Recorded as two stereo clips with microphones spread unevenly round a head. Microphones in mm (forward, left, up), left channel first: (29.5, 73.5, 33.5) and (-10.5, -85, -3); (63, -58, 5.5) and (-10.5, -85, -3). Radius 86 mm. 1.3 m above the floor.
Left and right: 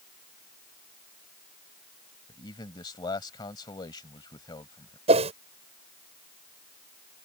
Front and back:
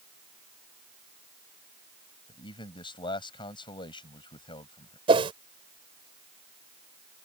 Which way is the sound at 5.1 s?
165° right.